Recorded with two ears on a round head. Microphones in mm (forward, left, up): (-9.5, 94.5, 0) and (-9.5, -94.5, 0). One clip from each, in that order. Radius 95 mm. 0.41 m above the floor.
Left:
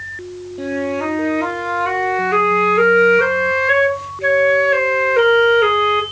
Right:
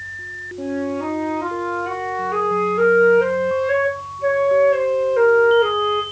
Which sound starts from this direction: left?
A flute, at 0.6 s.